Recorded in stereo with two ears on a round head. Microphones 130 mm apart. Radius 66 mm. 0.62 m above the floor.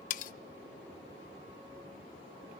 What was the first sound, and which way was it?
Cutlery clinking, 60° left (ahead or behind).